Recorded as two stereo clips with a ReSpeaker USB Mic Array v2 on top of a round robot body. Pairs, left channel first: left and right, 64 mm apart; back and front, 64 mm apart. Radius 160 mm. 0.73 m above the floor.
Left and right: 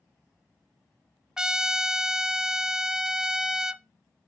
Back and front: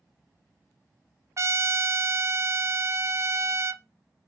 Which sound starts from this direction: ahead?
A trumpet, at 1.4 s.